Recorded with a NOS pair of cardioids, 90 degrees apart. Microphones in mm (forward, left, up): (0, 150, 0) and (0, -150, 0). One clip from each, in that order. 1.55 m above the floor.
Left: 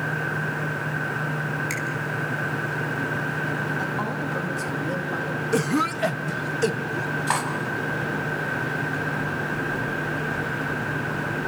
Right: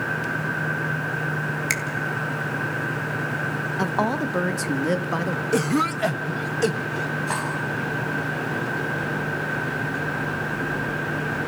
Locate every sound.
1.7 s a finger snap: 50° right, 3 m
3.8 s a woman speaking: 55° right, 2.0 m
5.5 s a cough: 5° right, 1.2 m
7.3 s cutlery clinking: 50° left, 7 m